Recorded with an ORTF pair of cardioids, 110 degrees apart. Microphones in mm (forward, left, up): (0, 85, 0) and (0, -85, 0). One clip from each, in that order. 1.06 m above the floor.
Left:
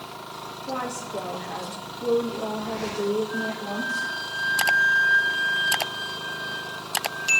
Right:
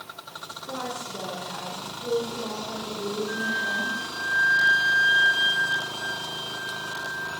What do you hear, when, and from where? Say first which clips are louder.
0.7 s a woman speaking: left 3 dB; 50° left, 3.5 m
3.3 s a flute: right 3 dB; 50° right, 9.5 m